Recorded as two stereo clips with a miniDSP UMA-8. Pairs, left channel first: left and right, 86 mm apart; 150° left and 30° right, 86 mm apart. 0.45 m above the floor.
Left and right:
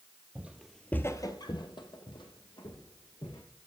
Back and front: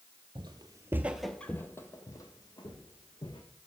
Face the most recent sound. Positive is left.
turn(degrees=115)